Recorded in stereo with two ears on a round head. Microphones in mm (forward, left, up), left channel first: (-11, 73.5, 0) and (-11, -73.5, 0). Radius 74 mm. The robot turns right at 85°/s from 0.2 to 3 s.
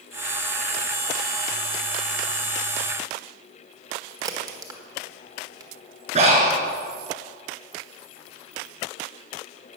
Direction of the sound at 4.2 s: 25° right (ahead or behind).